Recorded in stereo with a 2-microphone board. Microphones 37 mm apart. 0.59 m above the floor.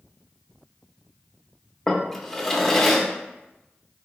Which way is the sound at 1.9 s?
10° left (ahead or behind).